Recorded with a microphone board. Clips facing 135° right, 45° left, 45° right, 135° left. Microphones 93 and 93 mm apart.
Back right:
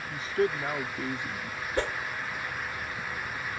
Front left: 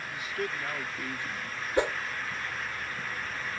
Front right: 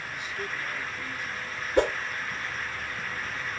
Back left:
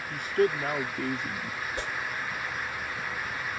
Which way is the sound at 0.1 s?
170° left.